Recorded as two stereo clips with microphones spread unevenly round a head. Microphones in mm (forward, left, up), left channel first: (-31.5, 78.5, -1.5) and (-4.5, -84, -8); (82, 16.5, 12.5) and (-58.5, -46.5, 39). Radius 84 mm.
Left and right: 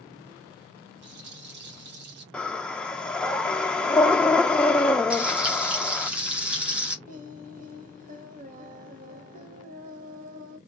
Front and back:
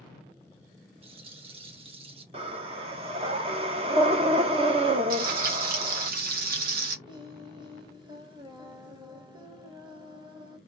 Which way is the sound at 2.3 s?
Straight behind.